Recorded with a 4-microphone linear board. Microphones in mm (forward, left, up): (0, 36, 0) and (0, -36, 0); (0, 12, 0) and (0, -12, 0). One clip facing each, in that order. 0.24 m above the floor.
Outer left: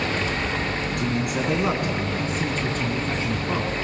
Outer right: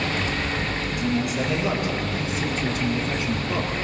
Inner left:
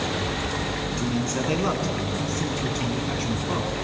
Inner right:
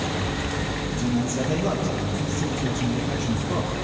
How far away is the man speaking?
About 2.5 m.